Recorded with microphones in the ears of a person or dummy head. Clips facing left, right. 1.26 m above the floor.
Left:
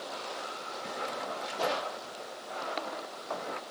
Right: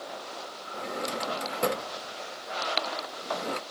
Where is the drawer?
45° right (ahead or behind).